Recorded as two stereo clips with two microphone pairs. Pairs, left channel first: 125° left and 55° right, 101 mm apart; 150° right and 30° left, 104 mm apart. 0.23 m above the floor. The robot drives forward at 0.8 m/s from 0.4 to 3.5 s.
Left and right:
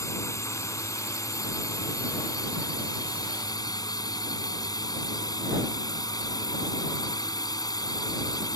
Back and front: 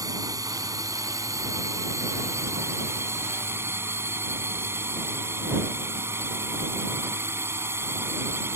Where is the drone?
75° left; by 8.6 s 90° left.